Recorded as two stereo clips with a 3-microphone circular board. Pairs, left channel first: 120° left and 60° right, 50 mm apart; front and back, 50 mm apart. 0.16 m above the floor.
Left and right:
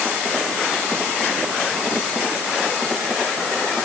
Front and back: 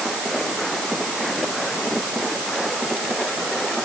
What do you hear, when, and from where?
Only background noise.